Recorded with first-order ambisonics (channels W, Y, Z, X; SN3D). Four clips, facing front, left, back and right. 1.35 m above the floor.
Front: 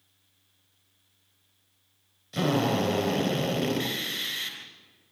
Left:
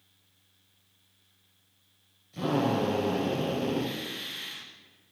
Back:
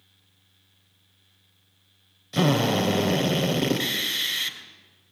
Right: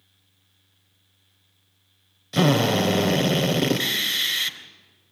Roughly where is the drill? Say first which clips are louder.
Right 8 dB, back 3 dB; right.